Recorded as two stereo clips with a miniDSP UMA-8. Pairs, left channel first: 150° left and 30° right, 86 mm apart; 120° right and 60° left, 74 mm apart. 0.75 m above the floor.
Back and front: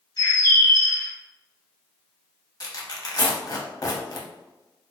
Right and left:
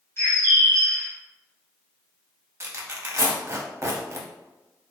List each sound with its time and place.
0.2 s a bird: 175° right, 1.8 m
2.6 s tearing paper: 110° left, 0.7 m